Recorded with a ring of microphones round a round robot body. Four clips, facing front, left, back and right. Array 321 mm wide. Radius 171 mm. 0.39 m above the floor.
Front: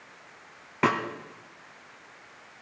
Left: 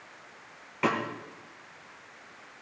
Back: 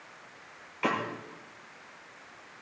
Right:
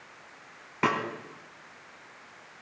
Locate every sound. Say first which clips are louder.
0.8 s a snare drum: right 1 dB, front 5 dB; 20° right, 2.5 m